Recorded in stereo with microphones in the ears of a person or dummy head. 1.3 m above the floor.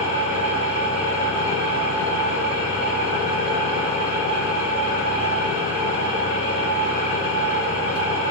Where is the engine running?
50° right (ahead or behind), 2.0 m.